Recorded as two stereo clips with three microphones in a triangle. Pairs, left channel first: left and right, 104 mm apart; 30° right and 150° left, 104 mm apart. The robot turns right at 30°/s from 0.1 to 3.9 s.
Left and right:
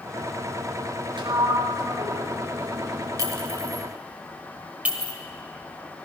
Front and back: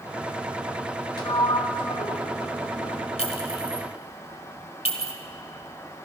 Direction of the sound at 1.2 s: 65° right.